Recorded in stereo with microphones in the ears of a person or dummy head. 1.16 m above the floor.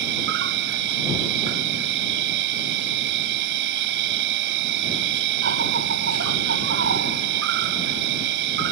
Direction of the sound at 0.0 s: 65° right (ahead or behind).